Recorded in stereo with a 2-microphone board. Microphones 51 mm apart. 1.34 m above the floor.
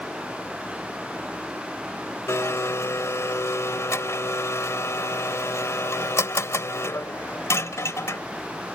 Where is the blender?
75° left (ahead or behind).